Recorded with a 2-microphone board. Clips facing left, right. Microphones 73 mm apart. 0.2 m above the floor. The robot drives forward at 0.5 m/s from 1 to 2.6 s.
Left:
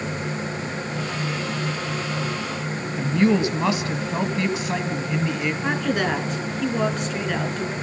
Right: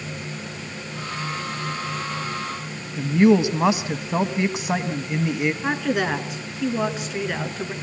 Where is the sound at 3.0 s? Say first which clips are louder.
Right 3 dB; 20° right (ahead or behind), 1.2 m.